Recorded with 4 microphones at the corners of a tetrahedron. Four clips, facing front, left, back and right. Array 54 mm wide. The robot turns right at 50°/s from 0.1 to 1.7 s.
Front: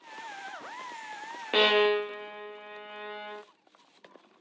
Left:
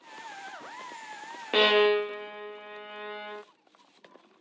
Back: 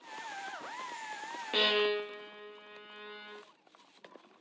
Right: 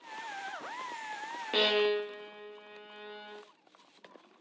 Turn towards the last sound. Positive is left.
turn(degrees=50)